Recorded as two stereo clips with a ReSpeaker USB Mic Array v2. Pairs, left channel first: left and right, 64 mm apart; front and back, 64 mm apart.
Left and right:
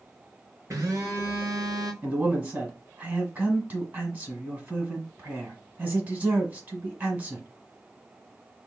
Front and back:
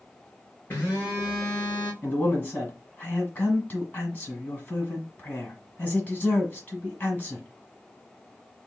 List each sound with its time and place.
0.7 s a phone buzzing: 60° right, 2.5 m
2.0 s a man speaking: 50° right, 1.5 m